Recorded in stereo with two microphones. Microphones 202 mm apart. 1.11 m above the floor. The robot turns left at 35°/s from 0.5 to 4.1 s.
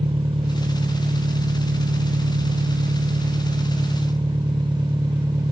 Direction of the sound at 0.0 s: 30° right.